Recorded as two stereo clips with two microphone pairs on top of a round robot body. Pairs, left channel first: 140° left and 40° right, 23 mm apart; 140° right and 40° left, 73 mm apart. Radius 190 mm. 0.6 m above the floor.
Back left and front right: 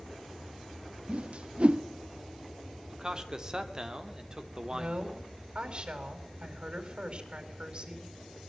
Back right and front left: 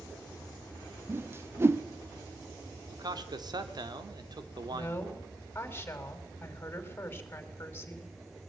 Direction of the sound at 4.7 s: 80° right.